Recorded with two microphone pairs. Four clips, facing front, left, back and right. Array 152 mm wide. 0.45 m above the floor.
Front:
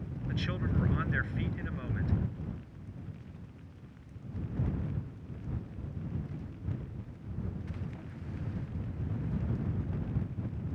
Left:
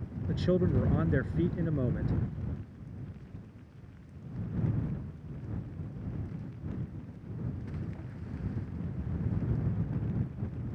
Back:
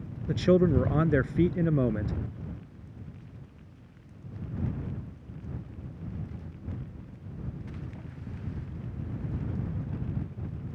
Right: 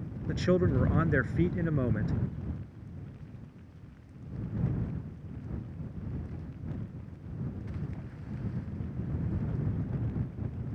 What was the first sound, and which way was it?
A man speaking, 175° right.